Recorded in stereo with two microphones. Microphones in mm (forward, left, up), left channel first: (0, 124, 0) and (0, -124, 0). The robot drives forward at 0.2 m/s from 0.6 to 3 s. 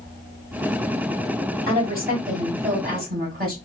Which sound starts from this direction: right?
A woman speaking, at 1.7 s.